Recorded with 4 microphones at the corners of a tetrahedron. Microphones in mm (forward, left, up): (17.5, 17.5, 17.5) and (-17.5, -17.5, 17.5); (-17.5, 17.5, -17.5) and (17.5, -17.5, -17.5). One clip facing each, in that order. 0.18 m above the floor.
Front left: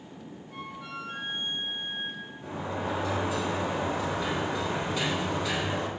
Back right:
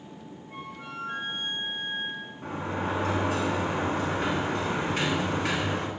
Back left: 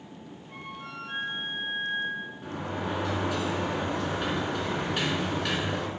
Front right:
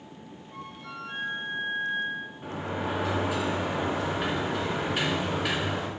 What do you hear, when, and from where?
0.5 s a flute: 170° left, 4.5 m
2.4 s a sliding door: 120° right, 2 m